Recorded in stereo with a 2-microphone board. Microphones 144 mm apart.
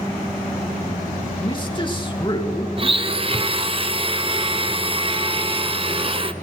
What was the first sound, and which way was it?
A man speaking, 35° left (ahead or behind).